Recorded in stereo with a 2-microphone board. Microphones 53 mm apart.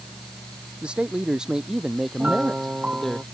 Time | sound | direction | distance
0.8 | a man speaking | 20° right (ahead or behind) | ?
2.2 | a piano | 25° right (ahead or behind) | ?